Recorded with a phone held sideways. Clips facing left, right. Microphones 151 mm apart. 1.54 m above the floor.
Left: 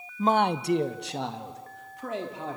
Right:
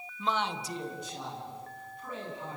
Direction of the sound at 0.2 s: 40° left (ahead or behind).